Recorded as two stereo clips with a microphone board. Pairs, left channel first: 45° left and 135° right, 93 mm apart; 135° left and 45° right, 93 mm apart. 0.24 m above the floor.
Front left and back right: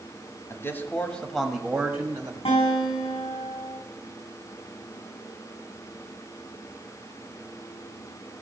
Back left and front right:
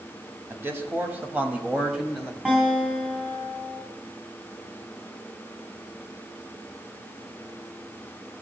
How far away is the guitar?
About 4 m.